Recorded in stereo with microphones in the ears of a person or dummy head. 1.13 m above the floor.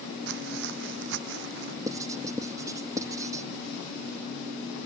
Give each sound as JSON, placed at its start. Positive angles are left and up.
{"t": 0.3, "sound": "footsteps", "side_deg": -60}
{"t": 1.9, "sound": "writing", "side_deg": -20}